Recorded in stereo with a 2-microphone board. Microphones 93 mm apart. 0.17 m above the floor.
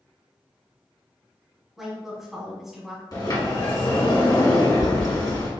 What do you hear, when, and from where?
1.8 s a woman speaking: 5° right (ahead or behind), 1.2 m
3.1 s a sliding door: 45° left (ahead or behind), 1.3 m